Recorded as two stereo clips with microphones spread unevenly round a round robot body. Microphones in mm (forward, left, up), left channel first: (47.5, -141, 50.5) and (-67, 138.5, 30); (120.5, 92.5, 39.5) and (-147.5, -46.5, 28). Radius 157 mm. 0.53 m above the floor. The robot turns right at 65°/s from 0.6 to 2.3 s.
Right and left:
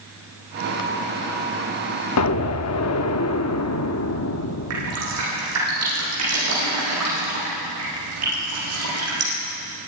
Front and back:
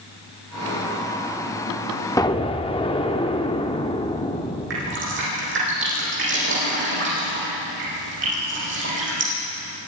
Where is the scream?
No scream in this recording.